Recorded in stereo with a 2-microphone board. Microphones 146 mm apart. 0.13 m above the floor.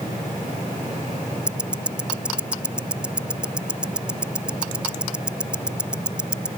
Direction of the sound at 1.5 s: 5° right (ahead or behind).